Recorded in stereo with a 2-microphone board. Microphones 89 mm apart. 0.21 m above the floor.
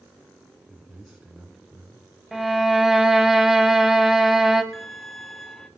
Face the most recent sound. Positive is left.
turn(degrees=5)  # may be behind; listen again after turning